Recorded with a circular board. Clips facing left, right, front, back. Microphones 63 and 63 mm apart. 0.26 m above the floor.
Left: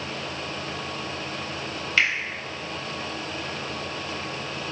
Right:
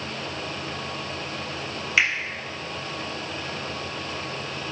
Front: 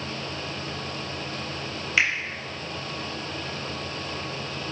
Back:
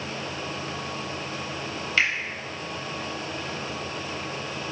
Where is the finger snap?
45° right, 0.8 m.